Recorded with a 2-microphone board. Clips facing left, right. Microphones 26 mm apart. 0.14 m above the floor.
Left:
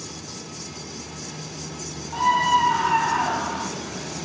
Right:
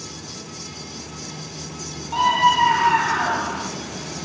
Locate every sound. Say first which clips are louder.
2.1 s a scream: right 2 dB; 60° right (ahead or behind), 3 m; by 3.7 s 10° right (ahead or behind), 1.1 m